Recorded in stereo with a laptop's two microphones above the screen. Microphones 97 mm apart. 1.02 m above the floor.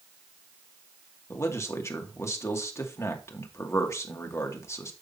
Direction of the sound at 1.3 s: 30° left (ahead or behind).